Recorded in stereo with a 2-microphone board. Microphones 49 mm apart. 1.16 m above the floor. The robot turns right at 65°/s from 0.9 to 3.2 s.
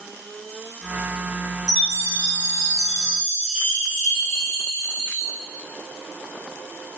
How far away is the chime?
About 1.5 m.